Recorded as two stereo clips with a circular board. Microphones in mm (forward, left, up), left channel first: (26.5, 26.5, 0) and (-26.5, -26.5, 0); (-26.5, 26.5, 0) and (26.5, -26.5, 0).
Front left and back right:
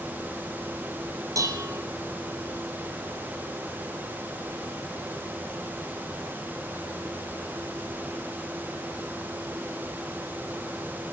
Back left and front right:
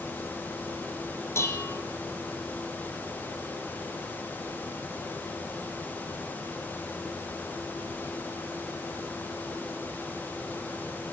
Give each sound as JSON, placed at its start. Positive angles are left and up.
{"t": 1.4, "sound": "dishes clattering", "azimuth_deg": -175, "distance_m": 2.5}